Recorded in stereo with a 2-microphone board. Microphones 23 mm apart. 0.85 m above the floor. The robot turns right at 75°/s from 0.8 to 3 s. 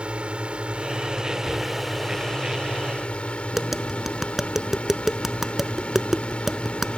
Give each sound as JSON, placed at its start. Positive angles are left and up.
{"t": 0.0, "sound": "a drone", "azimuth_deg": -75}
{"t": 1.4, "sound": "knocking", "side_deg": -65}
{"t": 3.5, "sound": "tapping", "side_deg": -10}